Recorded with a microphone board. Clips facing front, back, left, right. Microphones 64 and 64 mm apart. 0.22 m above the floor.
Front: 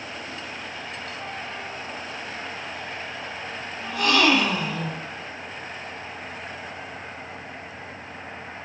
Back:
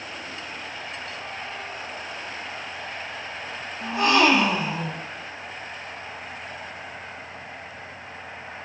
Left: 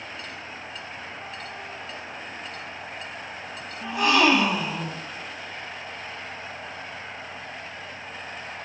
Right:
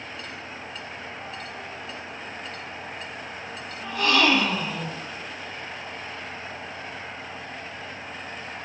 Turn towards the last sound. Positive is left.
turn(degrees=145)